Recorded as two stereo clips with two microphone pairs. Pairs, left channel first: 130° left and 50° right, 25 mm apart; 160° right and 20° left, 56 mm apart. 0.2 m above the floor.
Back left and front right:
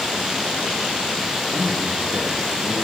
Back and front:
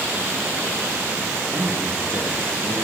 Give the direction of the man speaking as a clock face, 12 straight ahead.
10 o'clock.